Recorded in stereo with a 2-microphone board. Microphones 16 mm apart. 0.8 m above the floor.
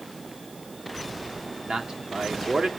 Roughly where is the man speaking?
Right.